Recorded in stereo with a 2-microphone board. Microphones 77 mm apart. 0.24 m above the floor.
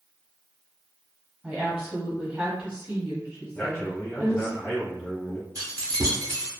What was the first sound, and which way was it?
A woman speaking, 10° right (ahead or behind).